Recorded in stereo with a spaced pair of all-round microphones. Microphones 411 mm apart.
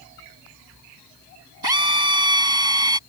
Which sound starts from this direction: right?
A drill, at 1.6 s.